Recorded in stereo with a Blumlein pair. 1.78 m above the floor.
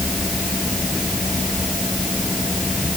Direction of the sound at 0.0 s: 5° left.